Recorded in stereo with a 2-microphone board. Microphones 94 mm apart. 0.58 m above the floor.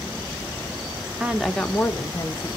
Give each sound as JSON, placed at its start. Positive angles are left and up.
{"t": 1.2, "sound": "a woman speaking", "side_deg": -10, "distance_m": 1.0}